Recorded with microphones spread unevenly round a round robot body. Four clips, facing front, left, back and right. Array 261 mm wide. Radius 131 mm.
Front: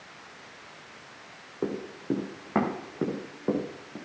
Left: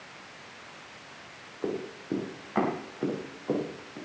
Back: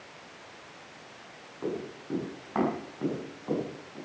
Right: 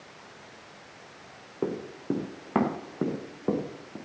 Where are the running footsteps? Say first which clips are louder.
Right 2 dB, front 3 dB; 55° right, 6.5 m; by 4.0 s 50° right, 7.5 m.